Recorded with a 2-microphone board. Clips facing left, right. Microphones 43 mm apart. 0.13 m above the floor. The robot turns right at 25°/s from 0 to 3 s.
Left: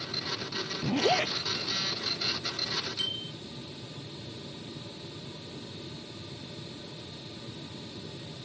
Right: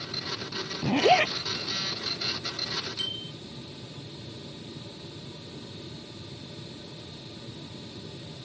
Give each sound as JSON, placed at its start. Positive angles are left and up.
{"t": 0.8, "sound": "a zipper", "side_deg": -55}
{"t": 3.0, "sound": "a bicycle bell", "side_deg": 0}